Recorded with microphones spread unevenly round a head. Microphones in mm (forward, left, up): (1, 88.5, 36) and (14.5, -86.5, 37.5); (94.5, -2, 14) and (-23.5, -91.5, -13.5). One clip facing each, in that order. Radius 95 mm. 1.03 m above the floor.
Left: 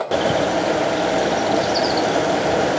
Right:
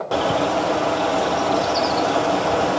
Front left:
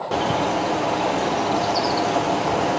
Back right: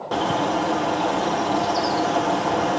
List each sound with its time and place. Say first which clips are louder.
0.1 s a bird: left 1 dB, even; 135° left, 0.8 m